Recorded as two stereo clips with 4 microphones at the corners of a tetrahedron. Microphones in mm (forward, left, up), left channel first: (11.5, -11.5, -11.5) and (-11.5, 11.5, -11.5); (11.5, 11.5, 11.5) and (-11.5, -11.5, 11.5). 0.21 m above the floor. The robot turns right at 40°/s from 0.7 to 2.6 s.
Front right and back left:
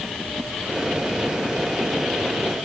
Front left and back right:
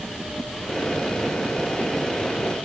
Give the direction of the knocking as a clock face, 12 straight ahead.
No knocking in this recording.